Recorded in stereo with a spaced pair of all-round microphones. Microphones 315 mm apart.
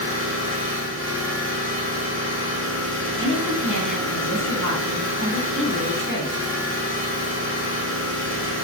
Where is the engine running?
40° right (ahead or behind), 0.8 m.